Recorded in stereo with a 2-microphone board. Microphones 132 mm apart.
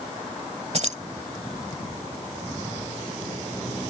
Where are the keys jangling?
55° right (ahead or behind).